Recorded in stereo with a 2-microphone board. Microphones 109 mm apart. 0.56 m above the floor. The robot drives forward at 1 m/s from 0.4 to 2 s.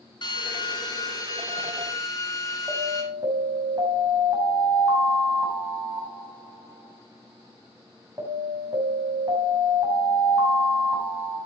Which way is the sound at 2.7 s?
35° right (ahead or behind).